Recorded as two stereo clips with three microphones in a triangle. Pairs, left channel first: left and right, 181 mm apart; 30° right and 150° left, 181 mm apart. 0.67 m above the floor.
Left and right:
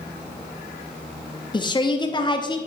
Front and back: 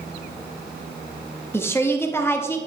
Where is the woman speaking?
40° left, 0.8 m.